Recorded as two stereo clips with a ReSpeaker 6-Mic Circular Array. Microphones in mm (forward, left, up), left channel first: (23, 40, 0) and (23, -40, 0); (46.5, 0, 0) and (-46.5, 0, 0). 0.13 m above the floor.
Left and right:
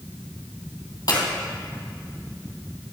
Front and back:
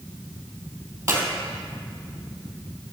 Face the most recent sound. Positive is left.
turn(degrees=115)